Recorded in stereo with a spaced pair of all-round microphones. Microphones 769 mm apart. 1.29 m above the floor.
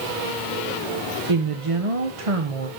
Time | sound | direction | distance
1.3 | a woman speaking | 45° right (ahead or behind) | 0.9 m